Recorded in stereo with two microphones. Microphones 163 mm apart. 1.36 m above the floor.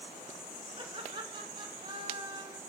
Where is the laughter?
30° right (ahead or behind), 4 m.